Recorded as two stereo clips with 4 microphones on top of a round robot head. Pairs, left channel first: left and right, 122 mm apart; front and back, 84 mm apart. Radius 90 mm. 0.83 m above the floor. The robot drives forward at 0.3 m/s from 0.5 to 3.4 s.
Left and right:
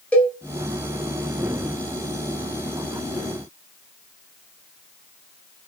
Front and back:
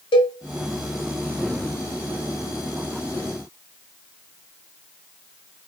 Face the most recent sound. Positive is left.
turn(degrees=100)